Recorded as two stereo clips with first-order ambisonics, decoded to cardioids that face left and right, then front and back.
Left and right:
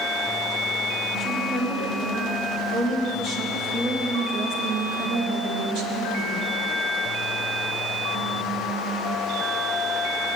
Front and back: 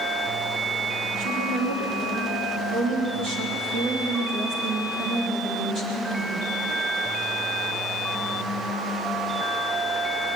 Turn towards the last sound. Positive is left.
turn(degrees=-120)